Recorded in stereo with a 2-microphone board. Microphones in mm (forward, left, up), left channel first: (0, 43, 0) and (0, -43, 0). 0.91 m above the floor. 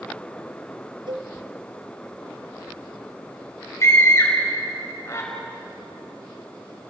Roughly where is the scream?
Left.